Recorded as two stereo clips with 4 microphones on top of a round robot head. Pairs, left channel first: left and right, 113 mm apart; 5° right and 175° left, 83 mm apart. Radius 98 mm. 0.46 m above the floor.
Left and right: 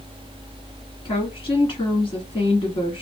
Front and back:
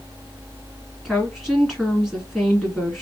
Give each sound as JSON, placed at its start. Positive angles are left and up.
{"t": 1.1, "sound": "a woman speaking", "azimuth_deg": 80, "distance_m": 1.5}